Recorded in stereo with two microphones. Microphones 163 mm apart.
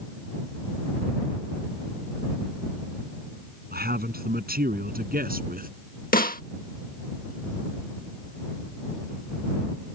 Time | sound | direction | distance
3.7 | a man speaking | 70° right (ahead or behind) | ?
6.1 | a snare drum | 60° left (ahead or behind) | ?